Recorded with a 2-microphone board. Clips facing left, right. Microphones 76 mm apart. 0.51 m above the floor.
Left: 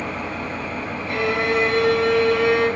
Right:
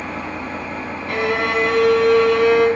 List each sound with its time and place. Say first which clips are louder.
0.0 s an engine running: even; 20° right (ahead or behind), 0.9 m
1.1 s a violin: right 1 dB; 70° right (ahead or behind), 0.7 m